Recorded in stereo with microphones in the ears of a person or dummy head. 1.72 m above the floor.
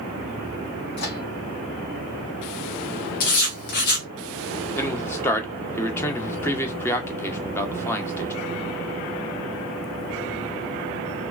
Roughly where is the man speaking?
Centre.